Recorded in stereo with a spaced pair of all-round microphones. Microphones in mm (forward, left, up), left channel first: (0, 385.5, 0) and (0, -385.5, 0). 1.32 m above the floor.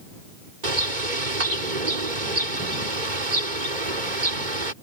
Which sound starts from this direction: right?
A bird, at 0.6 s.